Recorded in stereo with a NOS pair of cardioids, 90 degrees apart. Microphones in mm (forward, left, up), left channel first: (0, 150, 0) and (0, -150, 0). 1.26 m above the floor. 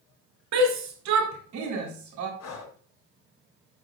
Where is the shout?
65° right, 3 m; by 2.3 s 70° right, 4 m.